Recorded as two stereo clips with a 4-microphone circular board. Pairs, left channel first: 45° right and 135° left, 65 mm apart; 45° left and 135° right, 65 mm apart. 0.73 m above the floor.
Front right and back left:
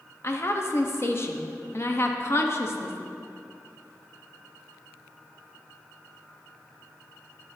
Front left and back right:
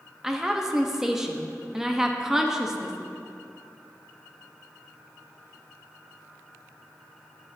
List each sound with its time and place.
0.2 s a woman speaking: 55° right, 0.6 m